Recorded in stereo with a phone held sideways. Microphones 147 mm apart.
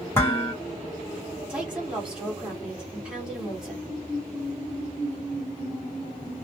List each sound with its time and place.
0.1 s dishes clattering: 15° left (ahead or behind), 1.4 m
1.5 s a woman speaking: 5° right (ahead or behind), 1.8 m